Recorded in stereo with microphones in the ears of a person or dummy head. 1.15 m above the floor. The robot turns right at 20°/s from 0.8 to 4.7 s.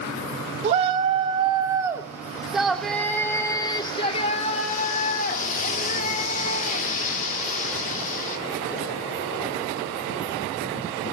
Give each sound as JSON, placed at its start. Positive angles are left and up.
{"t": 0.6, "sound": "a shout", "azimuth_deg": -40, "distance_m": 2.5}